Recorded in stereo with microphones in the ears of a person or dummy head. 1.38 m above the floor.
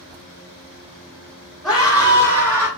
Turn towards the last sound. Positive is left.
turn(degrees=-20)  # may be behind; listen again after turning